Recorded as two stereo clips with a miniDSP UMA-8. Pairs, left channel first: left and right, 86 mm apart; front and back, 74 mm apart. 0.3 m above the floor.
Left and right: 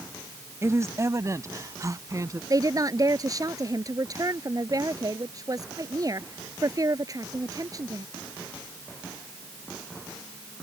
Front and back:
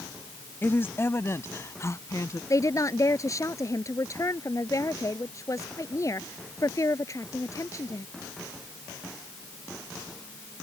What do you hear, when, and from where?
0.6 s a woman speaking: 50° right; by 2.4 s 45° right
2.5 s a woman speaking: 45° right